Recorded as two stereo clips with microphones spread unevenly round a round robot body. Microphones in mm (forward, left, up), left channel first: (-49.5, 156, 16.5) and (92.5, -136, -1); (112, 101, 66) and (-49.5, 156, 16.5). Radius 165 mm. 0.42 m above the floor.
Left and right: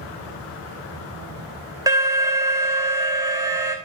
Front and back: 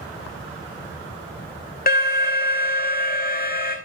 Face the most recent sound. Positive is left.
turn(degrees=10)